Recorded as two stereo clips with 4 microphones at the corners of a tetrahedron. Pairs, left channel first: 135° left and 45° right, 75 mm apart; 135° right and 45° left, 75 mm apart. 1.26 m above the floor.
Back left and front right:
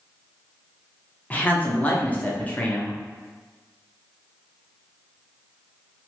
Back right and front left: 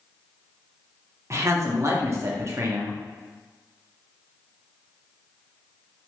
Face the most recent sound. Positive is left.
turn(degrees=75)